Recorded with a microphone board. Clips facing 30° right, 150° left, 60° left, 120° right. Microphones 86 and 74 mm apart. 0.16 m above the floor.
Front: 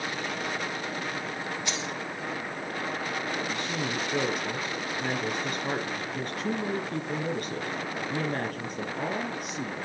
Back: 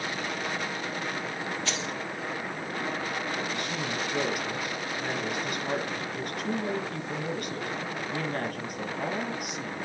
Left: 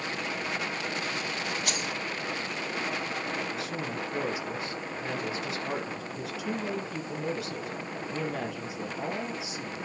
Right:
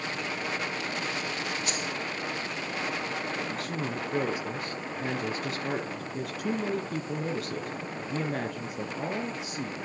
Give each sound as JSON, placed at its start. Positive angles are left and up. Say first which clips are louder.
{"t": 1.6, "sound": "keys jangling", "louder": "even, even", "azimuth_deg": 45, "distance_m": 3.0}
{"t": 3.5, "sound": "a woman speaking", "louder": "front 1 dB, right 1 dB", "azimuth_deg": -80, "distance_m": 4.0}